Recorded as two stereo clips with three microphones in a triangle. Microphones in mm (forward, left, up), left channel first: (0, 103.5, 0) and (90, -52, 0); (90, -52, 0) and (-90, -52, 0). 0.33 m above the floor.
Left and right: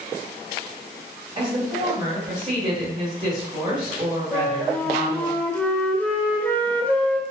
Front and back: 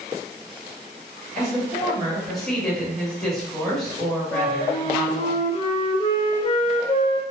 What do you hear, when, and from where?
1.4 s a woman speaking: 85° right, 1.2 m
4.3 s a flute: 40° left, 0.5 m